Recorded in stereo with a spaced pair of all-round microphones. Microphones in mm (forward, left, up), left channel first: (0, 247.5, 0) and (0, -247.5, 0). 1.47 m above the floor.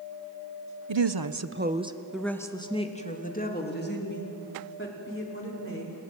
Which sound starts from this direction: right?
A woman speaking, at 0.9 s.